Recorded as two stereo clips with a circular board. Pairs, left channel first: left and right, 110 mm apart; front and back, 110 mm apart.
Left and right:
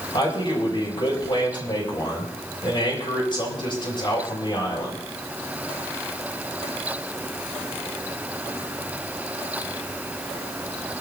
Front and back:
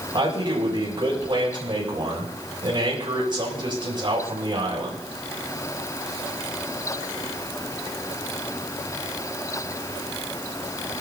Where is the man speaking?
135° left, 6 m.